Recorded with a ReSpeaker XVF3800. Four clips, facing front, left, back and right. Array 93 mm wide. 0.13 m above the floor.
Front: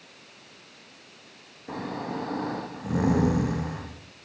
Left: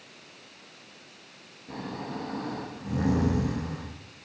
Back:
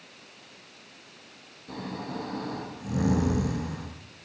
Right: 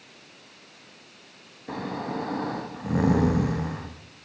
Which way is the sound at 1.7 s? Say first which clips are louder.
Right 5 dB, front 3 dB; 60° right.